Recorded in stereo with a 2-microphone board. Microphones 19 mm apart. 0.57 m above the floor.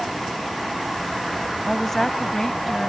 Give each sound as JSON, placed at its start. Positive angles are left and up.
{"t": 1.7, "sound": "a woman speaking", "side_deg": 10}